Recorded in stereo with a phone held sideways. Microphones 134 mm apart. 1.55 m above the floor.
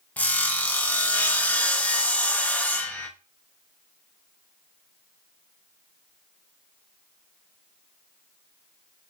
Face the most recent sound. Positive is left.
turn(degrees=10)  # may be behind; listen again after turning